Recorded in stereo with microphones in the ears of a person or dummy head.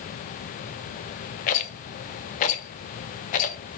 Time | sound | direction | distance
1.5 | a rattle | 45° left (ahead or behind) | 0.5 m